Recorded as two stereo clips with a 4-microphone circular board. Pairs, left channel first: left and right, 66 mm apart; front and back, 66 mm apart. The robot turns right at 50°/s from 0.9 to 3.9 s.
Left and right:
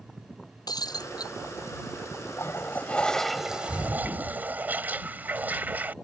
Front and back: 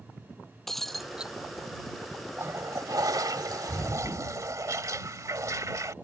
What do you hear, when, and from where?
0.7 s breaking glass: 85° left; by 1.3 s 105° left
2.4 s a toilet flushing: 135° left; by 5.9 s 150° right